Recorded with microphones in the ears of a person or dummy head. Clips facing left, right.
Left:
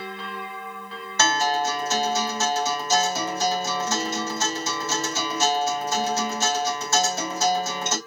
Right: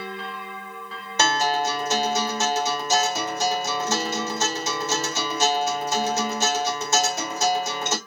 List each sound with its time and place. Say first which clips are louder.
1.2 s a guitar: even; 25° right (ahead or behind), 2.5 m